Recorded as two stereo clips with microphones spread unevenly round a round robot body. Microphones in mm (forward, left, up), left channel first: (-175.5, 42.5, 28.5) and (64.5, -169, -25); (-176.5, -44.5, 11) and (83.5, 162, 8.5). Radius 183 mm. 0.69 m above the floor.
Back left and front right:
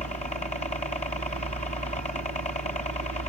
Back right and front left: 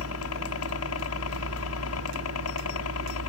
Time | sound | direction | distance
0.0 | a helicopter | 150° right | ?